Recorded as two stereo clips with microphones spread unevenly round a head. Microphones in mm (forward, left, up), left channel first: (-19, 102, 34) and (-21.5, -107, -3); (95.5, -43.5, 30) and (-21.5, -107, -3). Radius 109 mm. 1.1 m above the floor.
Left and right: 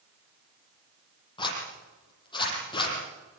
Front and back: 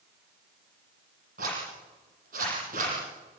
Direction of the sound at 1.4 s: 155° left.